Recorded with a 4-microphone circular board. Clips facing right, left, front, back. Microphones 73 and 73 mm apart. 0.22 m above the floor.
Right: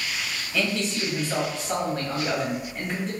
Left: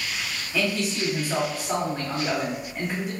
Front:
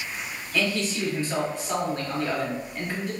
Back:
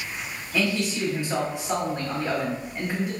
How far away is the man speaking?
About 1.0 m.